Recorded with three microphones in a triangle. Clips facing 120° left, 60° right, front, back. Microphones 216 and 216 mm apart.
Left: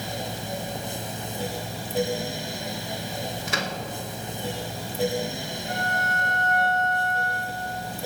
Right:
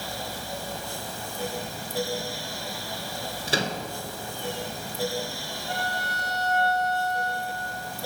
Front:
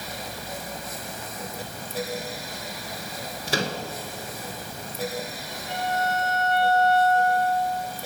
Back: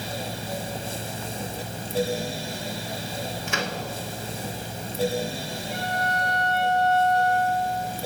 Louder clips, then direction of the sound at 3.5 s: Right 7 dB, front 6 dB; 25° right.